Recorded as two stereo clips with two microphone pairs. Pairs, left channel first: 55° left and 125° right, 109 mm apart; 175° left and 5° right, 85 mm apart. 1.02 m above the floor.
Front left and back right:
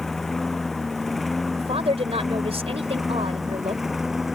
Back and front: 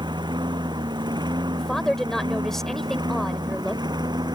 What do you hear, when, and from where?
0.0 s a lawn mower: 30° right; by 4.4 s 40° right
1.5 s a woman speaking: 100° right